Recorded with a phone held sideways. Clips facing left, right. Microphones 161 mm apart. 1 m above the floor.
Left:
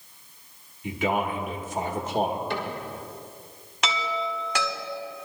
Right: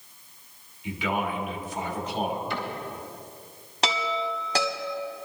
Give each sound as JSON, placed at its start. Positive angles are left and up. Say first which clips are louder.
{"t": 0.8, "sound": "a man speaking", "louder": "left 3 dB", "side_deg": 50, "distance_m": 2.0}
{"t": 2.5, "sound": "a cupboard door", "louder": "left 2 dB", "side_deg": 75, "distance_m": 3.0}
{"t": 3.8, "sound": "a chime", "louder": "right 1 dB", "side_deg": -35, "distance_m": 1.5}